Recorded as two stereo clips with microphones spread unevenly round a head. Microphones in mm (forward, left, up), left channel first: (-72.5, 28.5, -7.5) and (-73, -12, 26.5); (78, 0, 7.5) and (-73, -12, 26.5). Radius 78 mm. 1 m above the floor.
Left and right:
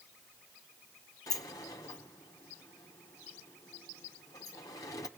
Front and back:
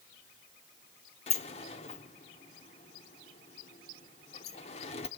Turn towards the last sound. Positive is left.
turn(degrees=50)